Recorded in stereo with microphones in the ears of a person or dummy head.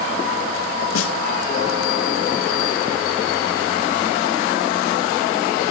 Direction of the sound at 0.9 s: 90° left.